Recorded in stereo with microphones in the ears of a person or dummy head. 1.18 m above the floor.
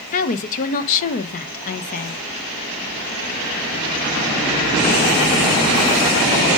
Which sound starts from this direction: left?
A woman speaking, at 0.1 s.